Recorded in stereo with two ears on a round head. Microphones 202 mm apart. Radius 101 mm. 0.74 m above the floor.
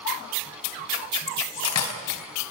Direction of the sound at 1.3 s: 85° left.